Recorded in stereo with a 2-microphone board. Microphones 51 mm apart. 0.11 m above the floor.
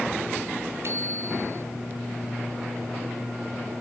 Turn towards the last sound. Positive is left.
turn(degrees=-55)  # may be behind; listen again after turning